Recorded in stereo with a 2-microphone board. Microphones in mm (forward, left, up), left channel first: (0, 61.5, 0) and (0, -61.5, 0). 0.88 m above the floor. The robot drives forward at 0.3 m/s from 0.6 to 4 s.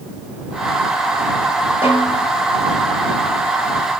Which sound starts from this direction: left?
A snare drum, at 1.8 s.